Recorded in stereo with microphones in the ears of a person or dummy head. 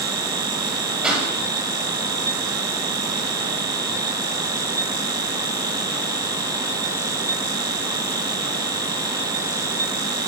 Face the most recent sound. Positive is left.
turn(degrees=0)  # may be behind; listen again after turning